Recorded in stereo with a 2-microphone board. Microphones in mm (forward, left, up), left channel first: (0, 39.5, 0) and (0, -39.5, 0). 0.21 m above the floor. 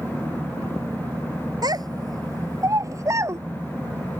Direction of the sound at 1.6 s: 55° right (ahead or behind).